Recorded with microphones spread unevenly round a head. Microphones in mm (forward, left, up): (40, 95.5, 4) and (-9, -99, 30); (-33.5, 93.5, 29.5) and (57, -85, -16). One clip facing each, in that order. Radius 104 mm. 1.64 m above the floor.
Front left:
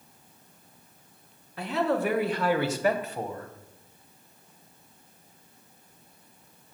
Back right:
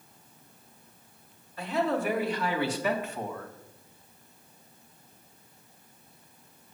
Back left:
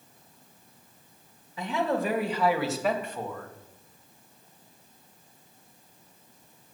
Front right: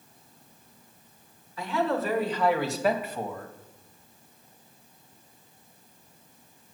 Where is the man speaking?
45° left, 2.0 m; by 3.5 s 10° left, 1.4 m.